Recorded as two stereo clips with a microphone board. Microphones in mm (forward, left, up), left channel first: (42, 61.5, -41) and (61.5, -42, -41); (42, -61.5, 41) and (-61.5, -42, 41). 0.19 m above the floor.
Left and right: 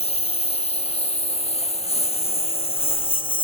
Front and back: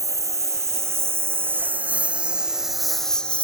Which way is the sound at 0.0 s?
110° left.